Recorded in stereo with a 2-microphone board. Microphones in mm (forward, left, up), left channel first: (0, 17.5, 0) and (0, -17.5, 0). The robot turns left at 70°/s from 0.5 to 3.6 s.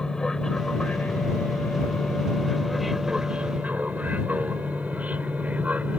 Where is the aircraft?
20° left (ahead or behind); by 6.0 s 45° right (ahead or behind).